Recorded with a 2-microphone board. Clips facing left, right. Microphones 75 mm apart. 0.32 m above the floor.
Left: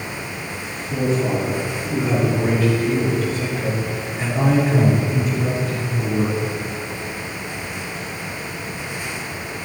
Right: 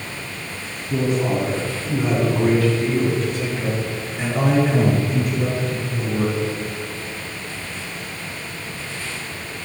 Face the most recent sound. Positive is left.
turn(degrees=-65)  # may be behind; listen again after turning